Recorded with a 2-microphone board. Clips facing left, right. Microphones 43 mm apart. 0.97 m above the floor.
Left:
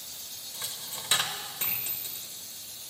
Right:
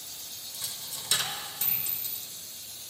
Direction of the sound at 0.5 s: 35° left (ahead or behind).